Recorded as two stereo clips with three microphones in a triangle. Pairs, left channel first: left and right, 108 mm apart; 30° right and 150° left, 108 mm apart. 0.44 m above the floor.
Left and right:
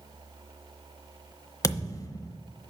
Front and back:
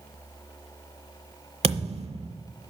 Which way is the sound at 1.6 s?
145° left.